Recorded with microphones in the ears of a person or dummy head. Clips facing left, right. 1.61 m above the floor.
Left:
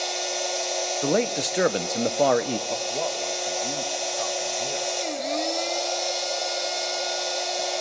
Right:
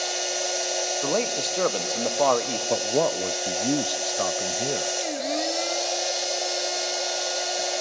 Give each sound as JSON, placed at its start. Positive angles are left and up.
{"t": 0.0, "sound": "a machine running", "side_deg": -10, "distance_m": 1.0}
{"t": 1.0, "sound": "a man speaking", "side_deg": 15, "distance_m": 1.0}
{"t": 2.7, "sound": "a man speaking", "side_deg": -60, "distance_m": 0.8}